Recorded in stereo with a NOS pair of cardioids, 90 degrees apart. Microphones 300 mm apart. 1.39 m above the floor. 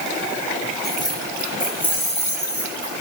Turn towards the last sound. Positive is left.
turn(degrees=25)